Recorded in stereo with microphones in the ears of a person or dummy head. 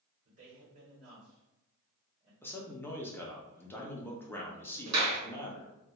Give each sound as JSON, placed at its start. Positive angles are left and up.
{"t": 0.2, "sound": "a man speaking", "side_deg": -40, "distance_m": 1.1}
{"t": 2.4, "sound": "a man speaking", "side_deg": 10, "distance_m": 0.6}
{"t": 4.9, "sound": "a clap", "side_deg": -85, "distance_m": 1.1}